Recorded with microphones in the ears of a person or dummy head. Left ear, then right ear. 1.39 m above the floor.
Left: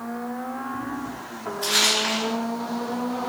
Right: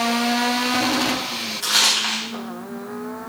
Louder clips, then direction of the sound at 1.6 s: Right 2 dB; 20° right (ahead or behind).